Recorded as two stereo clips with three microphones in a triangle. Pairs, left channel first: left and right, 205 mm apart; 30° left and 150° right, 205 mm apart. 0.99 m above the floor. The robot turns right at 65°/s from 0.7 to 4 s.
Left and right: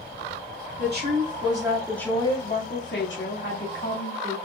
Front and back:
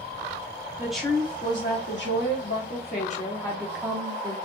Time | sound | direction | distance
0.8 | a woman speaking | 70° right | 2.5 m